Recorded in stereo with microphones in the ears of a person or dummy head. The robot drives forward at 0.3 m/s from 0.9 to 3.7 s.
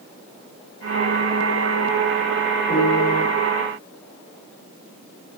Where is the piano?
20° left (ahead or behind), 8 m.